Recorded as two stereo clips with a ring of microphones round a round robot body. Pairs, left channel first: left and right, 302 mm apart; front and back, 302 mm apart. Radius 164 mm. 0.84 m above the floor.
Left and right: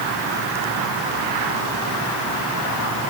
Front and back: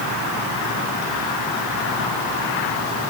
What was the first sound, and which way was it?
Only background noise.